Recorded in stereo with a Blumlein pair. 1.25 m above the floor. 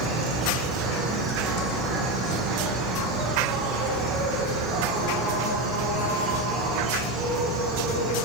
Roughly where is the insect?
Ahead right.